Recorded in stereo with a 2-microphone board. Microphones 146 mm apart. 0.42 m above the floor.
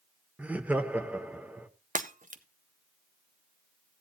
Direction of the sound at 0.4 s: 10° right (ahead or behind).